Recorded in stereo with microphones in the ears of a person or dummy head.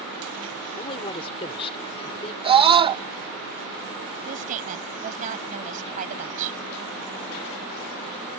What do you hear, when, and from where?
0.8 s a man speaking: 25° left (ahead or behind)
2.4 s a scream: 20° right (ahead or behind)
4.2 s a woman speaking: 45° right (ahead or behind)